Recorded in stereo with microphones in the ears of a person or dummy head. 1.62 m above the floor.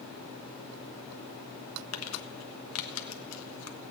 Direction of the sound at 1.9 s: 80° left.